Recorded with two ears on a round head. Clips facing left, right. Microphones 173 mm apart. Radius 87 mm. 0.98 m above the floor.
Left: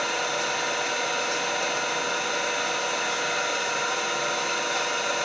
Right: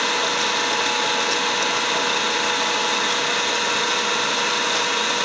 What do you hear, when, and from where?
0.0 s an engine running: 75° right (ahead or behind), 0.8 m